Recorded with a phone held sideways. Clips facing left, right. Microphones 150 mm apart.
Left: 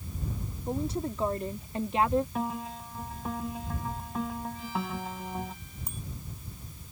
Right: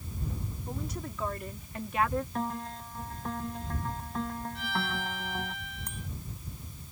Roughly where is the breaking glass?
No breaking glass in this recording.